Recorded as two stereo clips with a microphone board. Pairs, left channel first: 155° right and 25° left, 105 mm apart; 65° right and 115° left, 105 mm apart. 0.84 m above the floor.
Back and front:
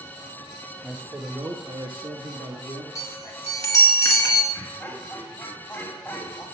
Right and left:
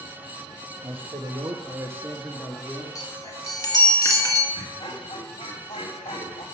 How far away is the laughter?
About 1.9 m.